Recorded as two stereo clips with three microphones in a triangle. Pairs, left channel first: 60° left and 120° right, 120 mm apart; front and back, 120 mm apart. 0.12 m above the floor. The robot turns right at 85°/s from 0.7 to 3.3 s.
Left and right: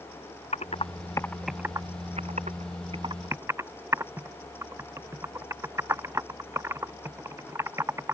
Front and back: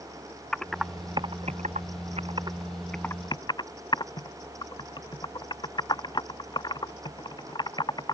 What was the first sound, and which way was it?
Typing on a keyboard, 85° left.